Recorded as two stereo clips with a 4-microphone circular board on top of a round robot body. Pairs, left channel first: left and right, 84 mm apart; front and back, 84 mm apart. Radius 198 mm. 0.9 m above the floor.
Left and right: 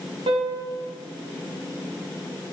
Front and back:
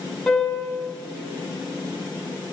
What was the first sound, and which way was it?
A piano, 85° right.